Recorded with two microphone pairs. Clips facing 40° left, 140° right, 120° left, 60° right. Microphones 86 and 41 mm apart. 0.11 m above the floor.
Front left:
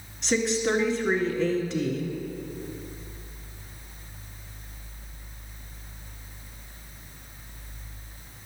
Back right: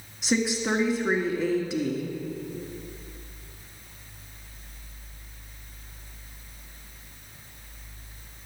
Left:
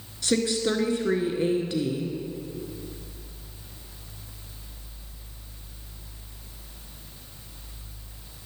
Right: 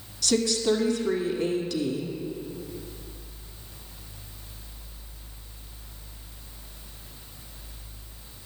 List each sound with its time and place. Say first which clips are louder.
0.2 s a woman speaking: front left 1 dB, right 1 dB; 145° left, 1.2 m